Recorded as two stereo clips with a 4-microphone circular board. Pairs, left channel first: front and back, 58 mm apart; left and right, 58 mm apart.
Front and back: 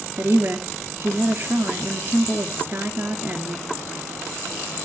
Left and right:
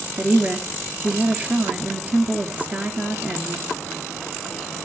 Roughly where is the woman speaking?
Behind right.